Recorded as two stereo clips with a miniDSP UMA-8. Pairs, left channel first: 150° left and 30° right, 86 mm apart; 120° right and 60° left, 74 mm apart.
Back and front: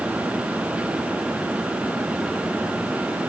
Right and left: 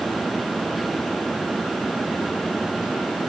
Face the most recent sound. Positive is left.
No sound to turn to.